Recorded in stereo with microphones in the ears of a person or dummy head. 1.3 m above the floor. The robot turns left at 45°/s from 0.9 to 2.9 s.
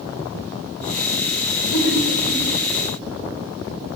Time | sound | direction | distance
1.7 | laughter | 80° left | 7.5 m